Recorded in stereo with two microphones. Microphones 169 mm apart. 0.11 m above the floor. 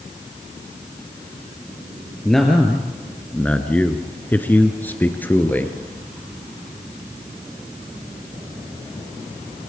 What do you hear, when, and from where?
2.2 s a man speaking: centre (ahead or behind), 1.9 m; by 5.7 s 10° left (ahead or behind), 1.9 m